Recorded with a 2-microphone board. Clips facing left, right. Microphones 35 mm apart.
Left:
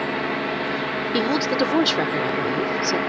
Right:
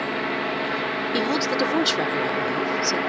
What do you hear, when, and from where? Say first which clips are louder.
1.1 s a woman speaking: left 2 dB; 15° left (ahead or behind)